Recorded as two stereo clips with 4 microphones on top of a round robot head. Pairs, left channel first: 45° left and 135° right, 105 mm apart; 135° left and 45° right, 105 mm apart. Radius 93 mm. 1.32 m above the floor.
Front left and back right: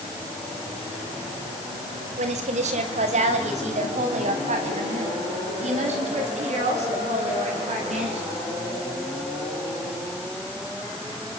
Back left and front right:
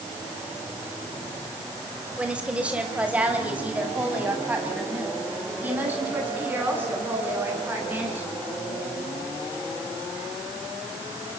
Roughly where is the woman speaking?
Behind right.